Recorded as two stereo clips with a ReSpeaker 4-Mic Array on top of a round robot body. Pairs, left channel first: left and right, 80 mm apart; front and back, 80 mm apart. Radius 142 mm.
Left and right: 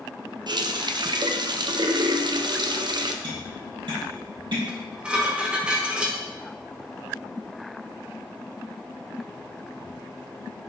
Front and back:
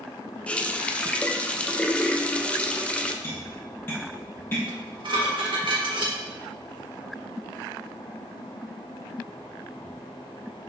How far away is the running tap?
About 0.8 m.